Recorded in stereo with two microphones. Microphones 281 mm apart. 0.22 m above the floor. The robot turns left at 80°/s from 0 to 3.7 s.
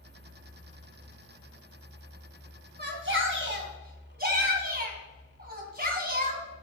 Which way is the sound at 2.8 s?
55° right.